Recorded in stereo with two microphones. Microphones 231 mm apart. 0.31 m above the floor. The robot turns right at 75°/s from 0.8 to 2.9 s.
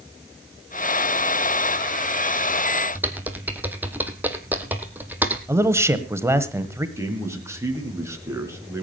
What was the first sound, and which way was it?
Typing on a keyboard, 10° right (ahead or behind).